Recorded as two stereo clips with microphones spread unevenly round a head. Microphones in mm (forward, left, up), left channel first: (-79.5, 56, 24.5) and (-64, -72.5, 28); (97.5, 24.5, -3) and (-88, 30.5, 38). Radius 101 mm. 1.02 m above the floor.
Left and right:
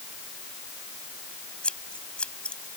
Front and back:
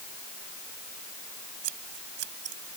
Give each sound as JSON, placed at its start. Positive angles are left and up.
{"t": 1.6, "sound": "scissors", "azimuth_deg": 180}